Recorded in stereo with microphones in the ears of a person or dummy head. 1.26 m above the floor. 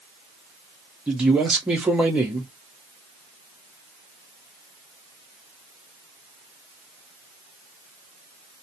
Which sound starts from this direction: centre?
A man speaking, at 1.1 s.